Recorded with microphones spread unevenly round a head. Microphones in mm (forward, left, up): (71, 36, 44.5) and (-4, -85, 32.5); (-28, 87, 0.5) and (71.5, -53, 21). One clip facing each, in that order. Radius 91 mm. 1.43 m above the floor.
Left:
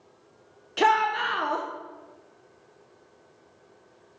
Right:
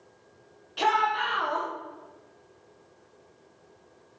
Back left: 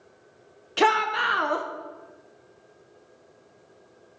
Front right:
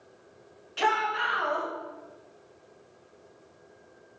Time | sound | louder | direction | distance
0.8 | a shout | left 3 dB, back left 5 dB | 105° left | 0.9 m